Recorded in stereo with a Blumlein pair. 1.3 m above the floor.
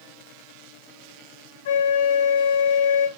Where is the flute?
55° left, 1.4 m.